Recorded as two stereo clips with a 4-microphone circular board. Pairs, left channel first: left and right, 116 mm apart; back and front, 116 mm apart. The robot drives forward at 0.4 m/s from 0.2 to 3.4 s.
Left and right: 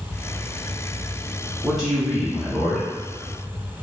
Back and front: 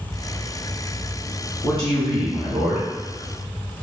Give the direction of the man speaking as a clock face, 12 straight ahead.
6 o'clock.